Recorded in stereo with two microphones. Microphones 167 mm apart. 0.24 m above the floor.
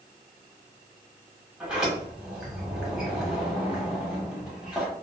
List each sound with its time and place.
1.6 s a sliding door: 5° right (ahead or behind), 1.1 m